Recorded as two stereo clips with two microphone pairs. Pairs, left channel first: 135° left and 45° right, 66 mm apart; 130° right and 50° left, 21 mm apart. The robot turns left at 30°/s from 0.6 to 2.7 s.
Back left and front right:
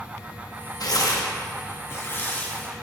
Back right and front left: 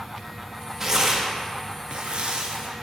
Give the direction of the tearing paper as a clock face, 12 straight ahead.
8 o'clock.